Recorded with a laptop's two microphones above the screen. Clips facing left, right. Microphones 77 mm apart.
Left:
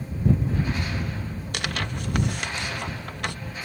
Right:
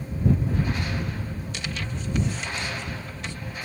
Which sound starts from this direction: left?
Tearing paper, at 1.5 s.